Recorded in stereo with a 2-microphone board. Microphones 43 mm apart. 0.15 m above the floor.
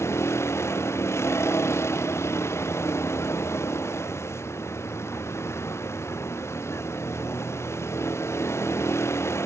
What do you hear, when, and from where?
0.0 s a vehicle: 85° left